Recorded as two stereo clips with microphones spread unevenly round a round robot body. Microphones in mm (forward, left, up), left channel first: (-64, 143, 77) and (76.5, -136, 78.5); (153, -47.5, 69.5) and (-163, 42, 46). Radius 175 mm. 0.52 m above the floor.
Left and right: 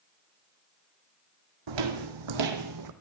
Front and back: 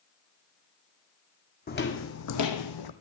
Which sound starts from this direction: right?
Footsteps, at 1.7 s.